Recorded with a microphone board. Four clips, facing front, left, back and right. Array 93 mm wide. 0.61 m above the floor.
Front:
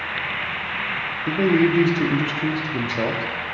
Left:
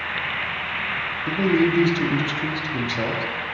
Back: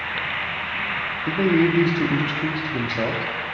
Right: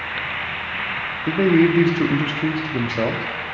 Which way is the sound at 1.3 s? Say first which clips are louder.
Right 4 dB, front 1 dB; 75° right.